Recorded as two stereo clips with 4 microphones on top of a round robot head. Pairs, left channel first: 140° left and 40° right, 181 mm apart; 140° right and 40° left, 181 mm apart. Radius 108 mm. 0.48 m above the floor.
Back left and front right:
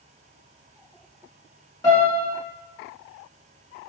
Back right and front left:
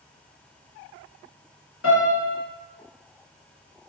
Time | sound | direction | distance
1.8 | a piano | 150° right | 1.4 m